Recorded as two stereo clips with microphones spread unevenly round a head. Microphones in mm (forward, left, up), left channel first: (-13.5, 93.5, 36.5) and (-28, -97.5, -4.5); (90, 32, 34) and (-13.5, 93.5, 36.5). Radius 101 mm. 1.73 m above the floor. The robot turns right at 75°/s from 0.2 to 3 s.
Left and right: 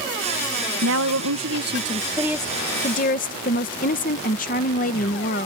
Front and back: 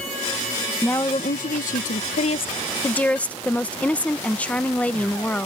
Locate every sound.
0.8 s a woman speaking: 115° right; by 5.5 s 45° left